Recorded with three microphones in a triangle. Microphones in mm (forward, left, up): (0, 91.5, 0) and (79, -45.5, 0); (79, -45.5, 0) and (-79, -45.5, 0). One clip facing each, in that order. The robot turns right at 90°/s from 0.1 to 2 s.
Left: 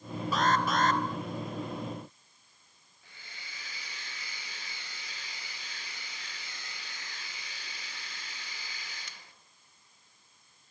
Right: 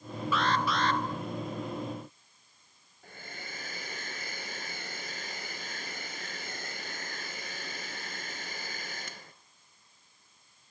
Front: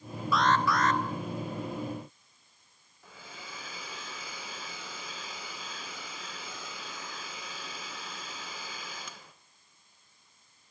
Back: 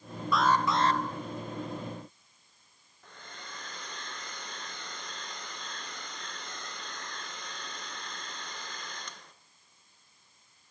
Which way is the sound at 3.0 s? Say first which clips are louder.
Right 9 dB, front 1 dB; 85° right.